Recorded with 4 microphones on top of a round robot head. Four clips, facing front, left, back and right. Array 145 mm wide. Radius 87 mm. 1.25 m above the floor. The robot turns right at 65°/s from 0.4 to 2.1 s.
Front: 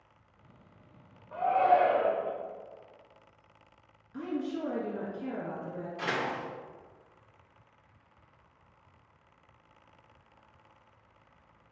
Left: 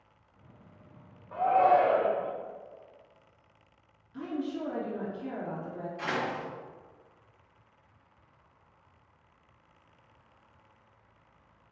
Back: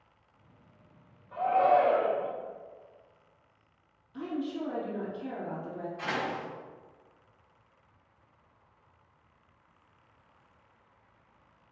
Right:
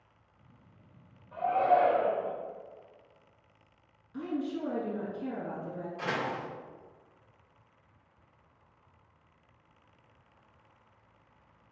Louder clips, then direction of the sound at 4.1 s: Even, even; 40° right.